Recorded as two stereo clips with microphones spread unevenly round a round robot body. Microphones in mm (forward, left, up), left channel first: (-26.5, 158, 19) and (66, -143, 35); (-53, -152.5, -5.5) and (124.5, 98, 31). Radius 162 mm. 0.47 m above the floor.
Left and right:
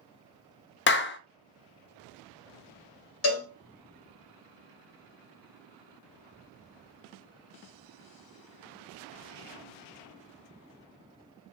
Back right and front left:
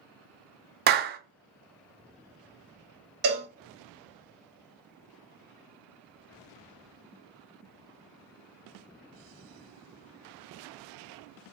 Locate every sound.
0.9 s a clap: 105° left, 0.6 m
3.2 s a cowbell: 110° left, 1.5 m